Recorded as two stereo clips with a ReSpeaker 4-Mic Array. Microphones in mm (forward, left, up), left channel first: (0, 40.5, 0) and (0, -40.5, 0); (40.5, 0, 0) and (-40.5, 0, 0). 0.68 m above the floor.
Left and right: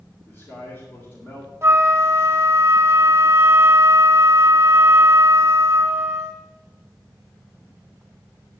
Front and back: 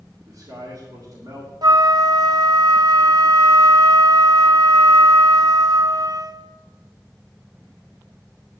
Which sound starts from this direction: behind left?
A man speaking, at 0.2 s.